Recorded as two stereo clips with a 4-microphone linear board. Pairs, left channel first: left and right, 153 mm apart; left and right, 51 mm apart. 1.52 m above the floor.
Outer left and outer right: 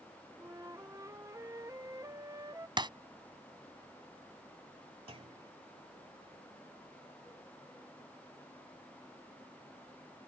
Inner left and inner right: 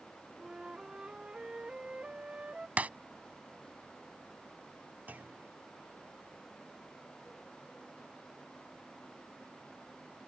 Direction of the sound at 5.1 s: 40° right (ahead or behind).